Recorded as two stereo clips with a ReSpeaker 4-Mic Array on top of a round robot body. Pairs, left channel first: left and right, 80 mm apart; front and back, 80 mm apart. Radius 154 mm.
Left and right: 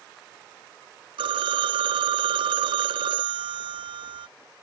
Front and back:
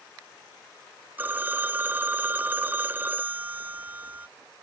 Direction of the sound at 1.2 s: 110° right.